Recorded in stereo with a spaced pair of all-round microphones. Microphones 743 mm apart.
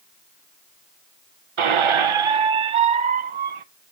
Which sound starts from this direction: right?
A squeak, at 1.6 s.